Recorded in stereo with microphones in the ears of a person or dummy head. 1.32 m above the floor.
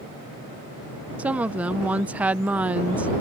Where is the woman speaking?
5° right (ahead or behind).